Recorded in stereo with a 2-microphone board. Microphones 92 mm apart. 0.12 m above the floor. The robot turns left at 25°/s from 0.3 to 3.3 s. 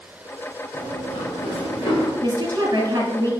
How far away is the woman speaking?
About 1.6 m.